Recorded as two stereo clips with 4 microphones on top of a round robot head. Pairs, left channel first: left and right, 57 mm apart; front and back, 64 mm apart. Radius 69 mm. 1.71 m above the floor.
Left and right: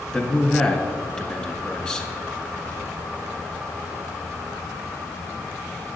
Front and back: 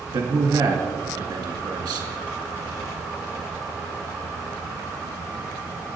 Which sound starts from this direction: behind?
A man speaking, at 0.1 s.